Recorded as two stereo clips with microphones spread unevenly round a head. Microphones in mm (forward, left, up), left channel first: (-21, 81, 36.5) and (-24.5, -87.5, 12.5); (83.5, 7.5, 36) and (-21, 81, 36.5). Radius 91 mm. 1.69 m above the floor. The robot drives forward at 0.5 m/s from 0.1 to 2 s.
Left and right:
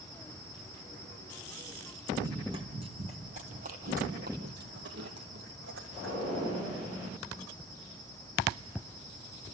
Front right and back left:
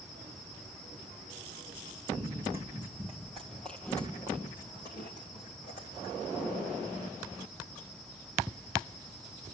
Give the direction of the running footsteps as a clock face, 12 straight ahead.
5 o'clock.